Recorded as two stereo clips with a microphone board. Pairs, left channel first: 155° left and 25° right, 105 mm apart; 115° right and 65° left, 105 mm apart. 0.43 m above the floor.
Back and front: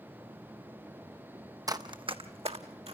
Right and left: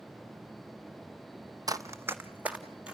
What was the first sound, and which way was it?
Running footsteps, 25° left.